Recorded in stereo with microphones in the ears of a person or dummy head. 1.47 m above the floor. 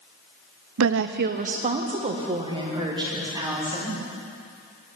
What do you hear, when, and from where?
0.8 s a woman speaking: 70° right (ahead or behind), 0.6 m; by 4.0 s 20° right (ahead or behind), 3 m